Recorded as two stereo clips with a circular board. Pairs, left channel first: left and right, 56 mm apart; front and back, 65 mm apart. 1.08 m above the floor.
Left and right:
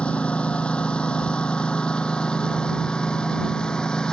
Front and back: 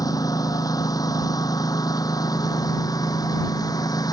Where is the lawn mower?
20° left; by 4.1 s 15° left.